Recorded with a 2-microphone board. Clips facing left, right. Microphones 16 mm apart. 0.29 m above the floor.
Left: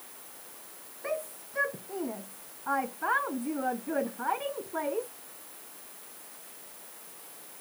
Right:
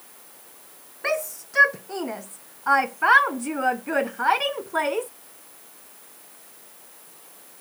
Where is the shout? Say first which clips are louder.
Right 8 dB; 80° right; by 5.1 s 85° right.